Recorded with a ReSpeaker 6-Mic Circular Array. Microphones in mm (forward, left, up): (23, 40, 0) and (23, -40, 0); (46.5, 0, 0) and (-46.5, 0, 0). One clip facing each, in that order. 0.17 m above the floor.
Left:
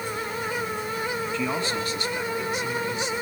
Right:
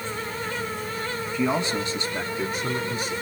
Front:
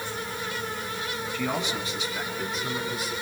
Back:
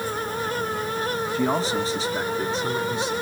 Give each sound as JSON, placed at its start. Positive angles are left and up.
{"t": 1.3, "sound": "a man speaking", "azimuth_deg": -155, "distance_m": 1.6}